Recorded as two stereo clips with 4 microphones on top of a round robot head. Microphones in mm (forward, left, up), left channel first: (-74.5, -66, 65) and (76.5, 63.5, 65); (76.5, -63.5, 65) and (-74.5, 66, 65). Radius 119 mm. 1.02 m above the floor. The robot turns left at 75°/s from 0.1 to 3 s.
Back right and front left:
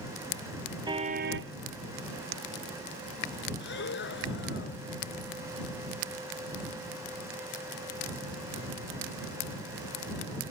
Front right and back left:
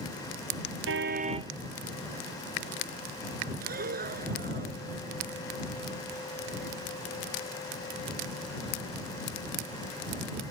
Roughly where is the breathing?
Behind.